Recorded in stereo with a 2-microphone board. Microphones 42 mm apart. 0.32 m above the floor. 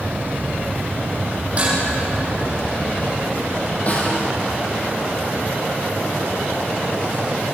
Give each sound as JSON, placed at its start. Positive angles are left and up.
{"t": 1.6, "sound": "dishes clattering", "side_deg": -30, "distance_m": 9.5}
{"t": 3.9, "sound": "a snare drum", "side_deg": 35, "distance_m": 6.0}